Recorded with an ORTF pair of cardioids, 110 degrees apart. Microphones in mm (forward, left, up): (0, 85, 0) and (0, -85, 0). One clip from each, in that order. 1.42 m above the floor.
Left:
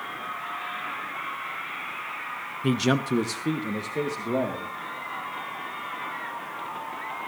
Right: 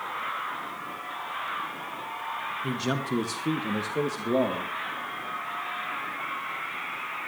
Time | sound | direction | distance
2.6 | a man speaking | 40° left | 0.9 m